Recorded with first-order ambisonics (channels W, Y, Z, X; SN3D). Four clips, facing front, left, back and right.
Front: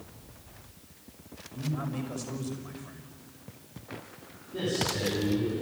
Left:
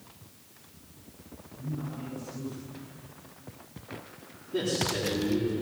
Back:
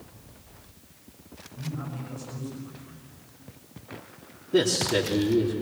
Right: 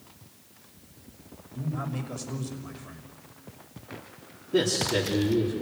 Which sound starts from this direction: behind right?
A man speaking, at 4.5 s.